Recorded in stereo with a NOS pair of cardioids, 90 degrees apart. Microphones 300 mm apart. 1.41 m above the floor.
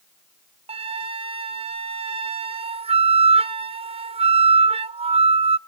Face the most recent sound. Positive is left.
turn(degrees=-20)